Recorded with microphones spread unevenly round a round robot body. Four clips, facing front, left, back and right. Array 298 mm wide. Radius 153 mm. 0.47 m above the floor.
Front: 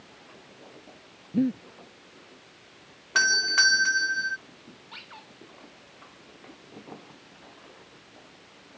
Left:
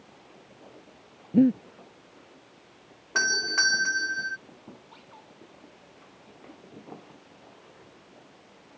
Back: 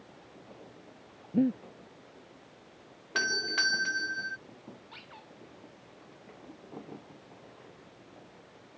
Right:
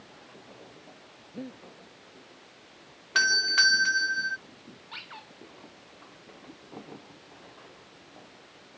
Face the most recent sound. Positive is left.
turn(degrees=125)